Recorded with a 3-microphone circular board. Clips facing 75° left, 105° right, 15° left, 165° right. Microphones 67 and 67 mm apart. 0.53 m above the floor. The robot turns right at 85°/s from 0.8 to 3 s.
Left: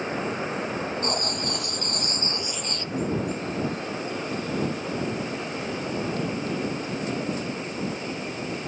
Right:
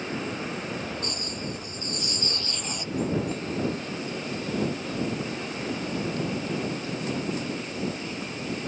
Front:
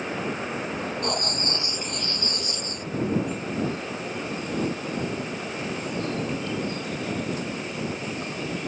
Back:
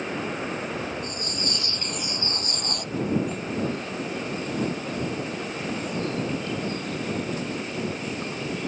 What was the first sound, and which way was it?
Writing, 30° left.